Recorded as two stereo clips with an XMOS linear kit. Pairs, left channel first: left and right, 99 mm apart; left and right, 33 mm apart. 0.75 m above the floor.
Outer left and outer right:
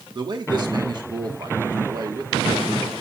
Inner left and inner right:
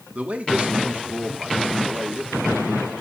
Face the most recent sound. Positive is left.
turn(degrees=-45)  # may be behind; listen again after turning